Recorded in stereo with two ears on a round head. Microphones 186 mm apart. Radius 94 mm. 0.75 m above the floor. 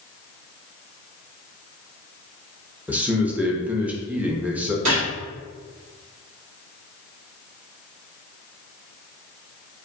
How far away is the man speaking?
About 0.6 m.